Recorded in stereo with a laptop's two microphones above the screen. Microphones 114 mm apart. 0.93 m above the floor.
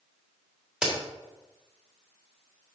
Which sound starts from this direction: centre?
A crack, at 0.8 s.